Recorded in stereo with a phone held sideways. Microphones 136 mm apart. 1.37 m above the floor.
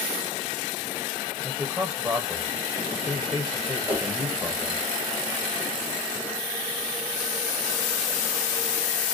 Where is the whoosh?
15° right (ahead or behind), 0.8 m.